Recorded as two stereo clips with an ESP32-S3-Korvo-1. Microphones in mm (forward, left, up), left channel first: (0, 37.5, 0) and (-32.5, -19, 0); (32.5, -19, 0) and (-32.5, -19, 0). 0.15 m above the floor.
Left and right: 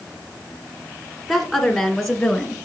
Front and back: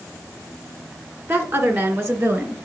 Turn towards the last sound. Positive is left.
turn(degrees=140)